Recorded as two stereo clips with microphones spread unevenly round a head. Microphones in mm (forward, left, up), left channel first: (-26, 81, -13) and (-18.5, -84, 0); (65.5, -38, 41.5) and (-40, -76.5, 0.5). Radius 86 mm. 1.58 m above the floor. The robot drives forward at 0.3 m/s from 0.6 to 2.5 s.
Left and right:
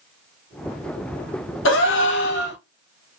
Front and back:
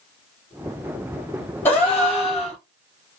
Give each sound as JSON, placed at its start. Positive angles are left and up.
{"t": 1.6, "sound": "a gasp", "azimuth_deg": 100, "distance_m": 1.0}